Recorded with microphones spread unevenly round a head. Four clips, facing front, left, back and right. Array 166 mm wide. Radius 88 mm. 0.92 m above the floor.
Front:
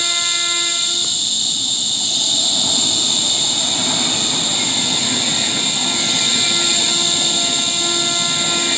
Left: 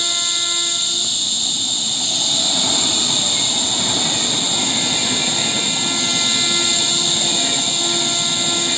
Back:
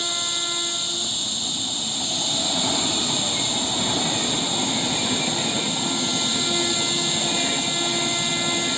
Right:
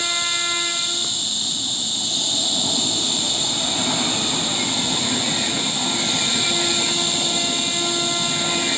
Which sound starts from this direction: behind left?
An insect, at 0.0 s.